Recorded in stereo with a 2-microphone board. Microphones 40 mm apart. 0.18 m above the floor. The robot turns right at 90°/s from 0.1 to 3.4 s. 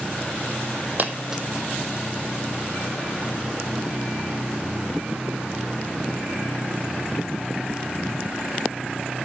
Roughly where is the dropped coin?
Right.